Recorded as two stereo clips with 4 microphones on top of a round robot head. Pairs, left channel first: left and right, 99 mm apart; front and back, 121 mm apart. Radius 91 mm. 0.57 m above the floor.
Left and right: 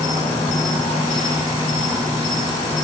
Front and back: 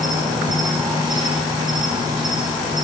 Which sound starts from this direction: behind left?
An insect, at 0.0 s.